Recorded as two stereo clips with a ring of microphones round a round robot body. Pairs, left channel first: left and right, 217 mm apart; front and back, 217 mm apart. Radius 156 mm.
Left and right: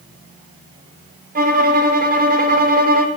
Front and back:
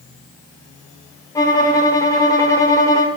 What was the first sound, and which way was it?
A violin, 70° right.